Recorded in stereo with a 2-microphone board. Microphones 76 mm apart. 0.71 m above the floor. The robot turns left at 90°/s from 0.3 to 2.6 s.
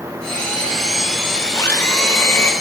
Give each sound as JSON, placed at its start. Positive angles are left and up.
{"t": 1.6, "sound": "a blender", "azimuth_deg": 135, "distance_m": 1.4}